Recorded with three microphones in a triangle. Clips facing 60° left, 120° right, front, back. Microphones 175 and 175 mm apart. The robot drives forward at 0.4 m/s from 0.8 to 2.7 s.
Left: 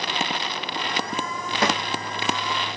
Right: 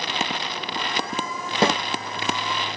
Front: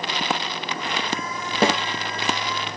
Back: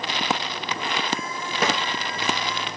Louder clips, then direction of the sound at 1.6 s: Right 3 dB, front 5 dB; 55° right.